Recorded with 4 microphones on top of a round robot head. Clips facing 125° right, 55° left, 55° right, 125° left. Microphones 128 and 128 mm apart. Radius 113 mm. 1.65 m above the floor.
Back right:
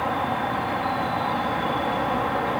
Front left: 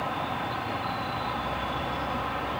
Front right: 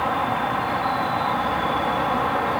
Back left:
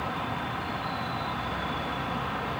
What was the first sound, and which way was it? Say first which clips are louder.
An insect: back right 6 dB, front right 10 dB; 90° right.